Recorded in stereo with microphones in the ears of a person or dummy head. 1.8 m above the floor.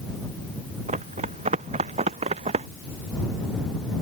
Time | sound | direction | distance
0.9 | running footsteps | 35° right (ahead or behind) | ?